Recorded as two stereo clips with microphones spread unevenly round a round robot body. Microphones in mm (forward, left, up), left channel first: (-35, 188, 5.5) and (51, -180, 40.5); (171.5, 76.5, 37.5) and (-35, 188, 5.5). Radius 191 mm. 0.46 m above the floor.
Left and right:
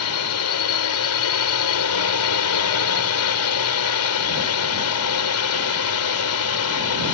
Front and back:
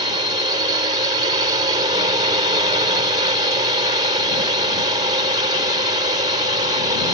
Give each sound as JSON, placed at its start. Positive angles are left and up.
{"t": 0.0, "sound": "a drone", "azimuth_deg": 95}